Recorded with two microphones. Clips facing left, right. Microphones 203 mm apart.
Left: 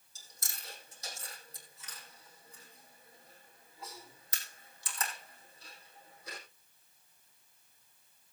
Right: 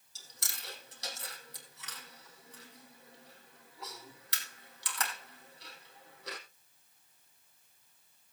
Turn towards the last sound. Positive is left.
turn(degrees=-75)  # may be behind; listen again after turning